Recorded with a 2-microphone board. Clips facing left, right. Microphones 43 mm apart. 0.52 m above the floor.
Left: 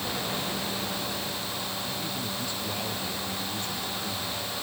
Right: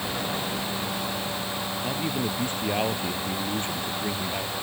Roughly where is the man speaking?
Right.